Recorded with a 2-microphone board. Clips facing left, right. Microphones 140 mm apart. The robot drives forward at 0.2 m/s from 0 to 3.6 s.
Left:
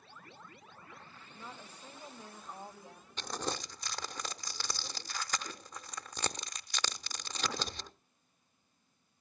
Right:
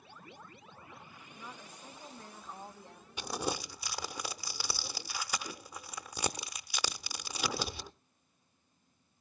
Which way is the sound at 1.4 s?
10° left (ahead or behind).